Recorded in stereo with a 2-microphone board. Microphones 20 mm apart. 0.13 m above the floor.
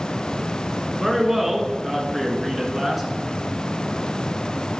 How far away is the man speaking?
About 1.3 m.